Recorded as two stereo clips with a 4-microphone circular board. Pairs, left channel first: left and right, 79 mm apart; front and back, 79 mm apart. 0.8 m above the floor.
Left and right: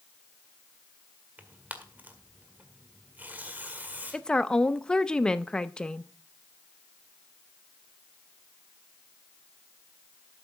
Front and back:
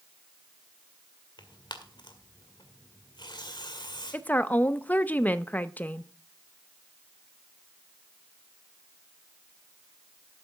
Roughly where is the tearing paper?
Ahead.